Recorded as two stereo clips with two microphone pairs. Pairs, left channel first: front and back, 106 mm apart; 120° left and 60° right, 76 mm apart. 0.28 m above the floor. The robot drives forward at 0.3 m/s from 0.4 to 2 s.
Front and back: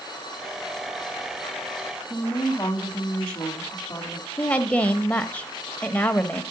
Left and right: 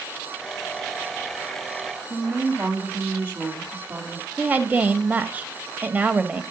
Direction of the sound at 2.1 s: 50° right.